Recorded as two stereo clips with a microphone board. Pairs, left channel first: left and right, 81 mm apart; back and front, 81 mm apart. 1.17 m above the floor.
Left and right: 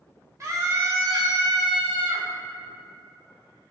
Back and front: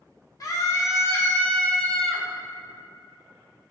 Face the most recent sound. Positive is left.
turn(degrees=-90)